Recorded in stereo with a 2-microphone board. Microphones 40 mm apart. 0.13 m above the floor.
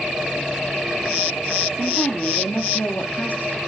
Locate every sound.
1.8 s a woman speaking: 30° left (ahead or behind), 3 m; by 3.6 s 50° left (ahead or behind), 3 m